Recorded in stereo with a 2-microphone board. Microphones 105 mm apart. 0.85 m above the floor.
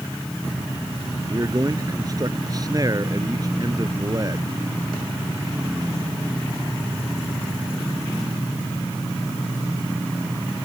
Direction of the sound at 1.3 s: 35° right (ahead or behind).